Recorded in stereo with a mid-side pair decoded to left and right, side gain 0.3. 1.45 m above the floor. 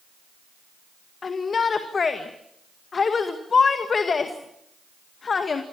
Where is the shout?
55° left, 2.0 m.